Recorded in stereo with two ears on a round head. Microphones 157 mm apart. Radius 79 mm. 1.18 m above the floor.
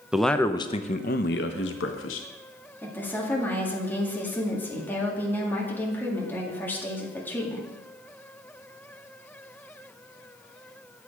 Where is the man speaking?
5° right (ahead or behind), 0.6 m; by 2.3 s 80° left, 1.1 m.